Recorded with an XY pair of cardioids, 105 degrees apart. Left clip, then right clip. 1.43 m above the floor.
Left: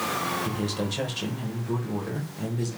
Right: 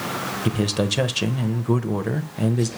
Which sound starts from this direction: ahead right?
A man speaking, at 0.5 s.